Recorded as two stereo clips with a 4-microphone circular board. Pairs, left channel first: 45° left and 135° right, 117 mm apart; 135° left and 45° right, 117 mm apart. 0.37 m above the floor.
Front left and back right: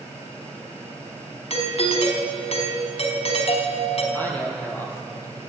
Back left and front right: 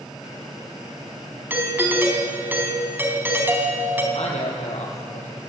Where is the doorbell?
25° left, 4 m.